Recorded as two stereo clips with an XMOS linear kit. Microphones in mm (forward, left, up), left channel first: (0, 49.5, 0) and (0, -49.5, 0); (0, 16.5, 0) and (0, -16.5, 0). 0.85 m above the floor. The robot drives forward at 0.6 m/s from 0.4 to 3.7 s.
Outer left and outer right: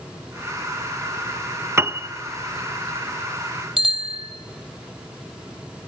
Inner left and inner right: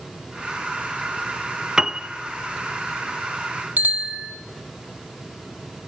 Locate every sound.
1.8 s a piano: 25° right (ahead or behind), 0.6 m; by 2.1 s 20° right (ahead or behind), 0.7 m
3.8 s a bicycle bell: 65° right (ahead or behind), 3 m